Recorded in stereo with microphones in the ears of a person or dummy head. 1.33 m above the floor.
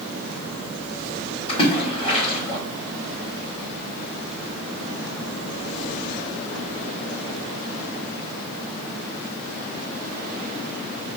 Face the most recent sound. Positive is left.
turn(degrees=20)  # may be behind; listen again after turning